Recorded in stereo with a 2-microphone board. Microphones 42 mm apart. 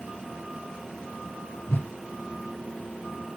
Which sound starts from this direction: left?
A whoosh, at 1.7 s.